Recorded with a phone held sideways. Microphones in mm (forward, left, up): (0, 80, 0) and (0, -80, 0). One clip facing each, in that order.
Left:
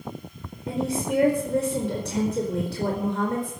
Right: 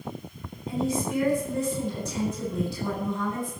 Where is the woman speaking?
85° left, 4 m.